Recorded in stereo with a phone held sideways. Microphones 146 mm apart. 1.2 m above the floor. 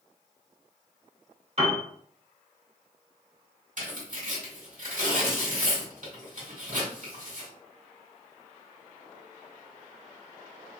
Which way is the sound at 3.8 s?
60° right (ahead or behind).